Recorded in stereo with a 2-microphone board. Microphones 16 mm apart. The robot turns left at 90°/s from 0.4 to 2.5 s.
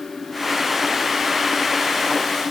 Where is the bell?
No bell in this recording.